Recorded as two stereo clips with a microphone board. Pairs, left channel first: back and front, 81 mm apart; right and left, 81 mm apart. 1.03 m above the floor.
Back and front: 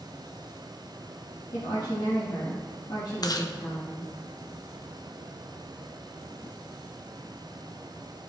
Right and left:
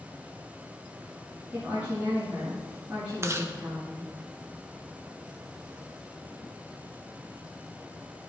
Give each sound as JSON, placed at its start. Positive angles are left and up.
{"t": 1.5, "sound": "a woman speaking", "azimuth_deg": 160, "distance_m": 1.5}
{"t": 3.2, "sound": "chewing", "azimuth_deg": 145, "distance_m": 0.5}